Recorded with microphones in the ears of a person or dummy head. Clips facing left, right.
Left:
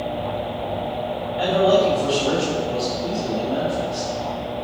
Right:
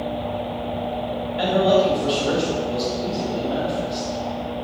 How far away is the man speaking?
About 3 m.